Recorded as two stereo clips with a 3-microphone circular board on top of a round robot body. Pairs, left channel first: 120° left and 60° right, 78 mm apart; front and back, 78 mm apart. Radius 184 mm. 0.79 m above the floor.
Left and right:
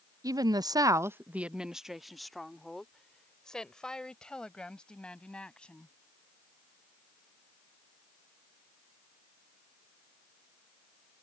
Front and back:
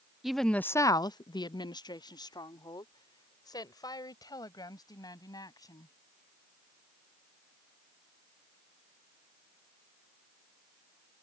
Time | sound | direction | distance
0.2 | a woman speaking | 95° right | ?